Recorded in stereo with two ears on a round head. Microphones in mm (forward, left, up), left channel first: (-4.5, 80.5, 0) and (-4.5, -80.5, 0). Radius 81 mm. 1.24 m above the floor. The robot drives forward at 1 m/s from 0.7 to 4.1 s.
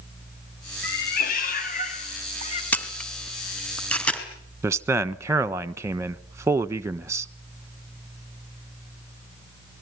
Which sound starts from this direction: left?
A cat meowing, at 0.8 s.